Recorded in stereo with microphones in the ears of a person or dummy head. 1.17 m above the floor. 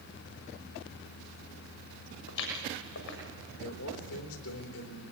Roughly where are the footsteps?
Left.